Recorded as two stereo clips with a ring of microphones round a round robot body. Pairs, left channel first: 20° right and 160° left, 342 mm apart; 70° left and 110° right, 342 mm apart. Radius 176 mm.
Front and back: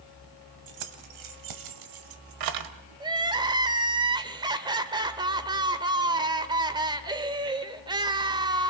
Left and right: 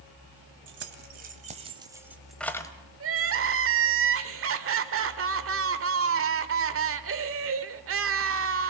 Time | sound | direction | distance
0.7 | keys jangling | 170° right | 1.8 m
3.0 | crying | 135° right | 1.3 m